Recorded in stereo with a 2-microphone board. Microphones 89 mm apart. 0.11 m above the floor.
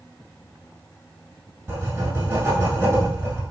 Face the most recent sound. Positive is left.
turn(degrees=-25)  # may be behind; listen again after turning